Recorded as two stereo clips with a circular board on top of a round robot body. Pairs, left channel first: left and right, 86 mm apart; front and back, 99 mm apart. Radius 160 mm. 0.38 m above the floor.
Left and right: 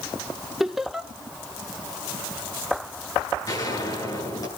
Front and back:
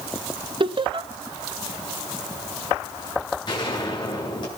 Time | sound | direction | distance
0.6 | laughter | 175° right | 2 m
3.5 | a gunshot | 45° left | 9 m